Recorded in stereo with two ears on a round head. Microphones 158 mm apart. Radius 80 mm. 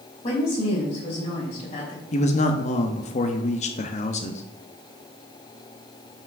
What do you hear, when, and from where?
0.2 s a woman speaking: 35° left (ahead or behind), 3 m
2.1 s a man speaking: 40° left (ahead or behind), 0.8 m